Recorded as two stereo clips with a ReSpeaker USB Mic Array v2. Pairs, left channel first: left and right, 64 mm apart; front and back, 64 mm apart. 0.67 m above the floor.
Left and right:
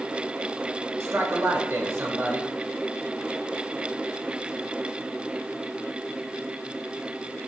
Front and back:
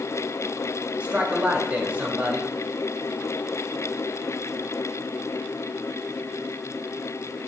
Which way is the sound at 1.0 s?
115° right.